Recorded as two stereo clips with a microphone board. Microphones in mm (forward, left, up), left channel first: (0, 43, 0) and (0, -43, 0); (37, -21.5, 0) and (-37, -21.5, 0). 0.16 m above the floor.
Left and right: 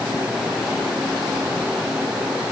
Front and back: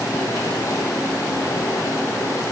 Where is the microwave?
No microwave in this recording.